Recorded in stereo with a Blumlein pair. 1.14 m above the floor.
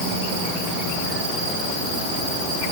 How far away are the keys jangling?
No keys jangling in this recording.